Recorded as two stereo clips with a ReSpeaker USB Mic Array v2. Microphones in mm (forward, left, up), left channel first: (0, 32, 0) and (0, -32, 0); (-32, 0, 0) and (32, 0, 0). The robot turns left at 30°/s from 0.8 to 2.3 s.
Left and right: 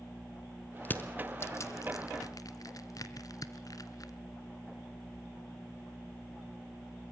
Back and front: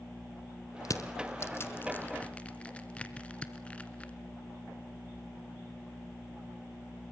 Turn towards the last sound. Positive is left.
turn(degrees=110)